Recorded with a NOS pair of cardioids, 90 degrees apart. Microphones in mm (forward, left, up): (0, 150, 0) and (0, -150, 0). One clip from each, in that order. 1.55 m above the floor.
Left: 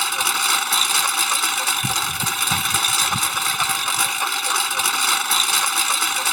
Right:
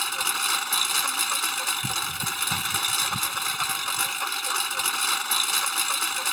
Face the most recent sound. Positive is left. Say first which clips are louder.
# left 6 dB
turn(degrees=45)